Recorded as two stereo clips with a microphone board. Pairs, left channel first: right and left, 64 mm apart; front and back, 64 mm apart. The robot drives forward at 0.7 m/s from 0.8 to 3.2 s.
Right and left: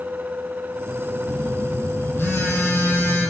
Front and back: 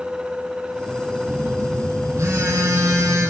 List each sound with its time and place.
1.3 s a phone buzzing: 140° right, 5 m; by 3.3 s 145° right, 6 m